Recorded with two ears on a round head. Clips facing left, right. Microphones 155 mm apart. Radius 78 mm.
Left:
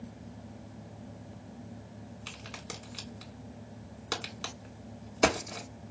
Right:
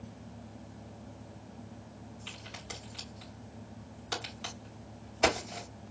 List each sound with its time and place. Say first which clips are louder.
2.3 s a crack: left 2 dB; 60° left (ahead or behind), 2 m